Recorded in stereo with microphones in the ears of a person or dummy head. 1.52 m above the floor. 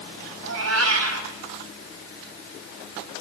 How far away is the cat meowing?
About 5 m.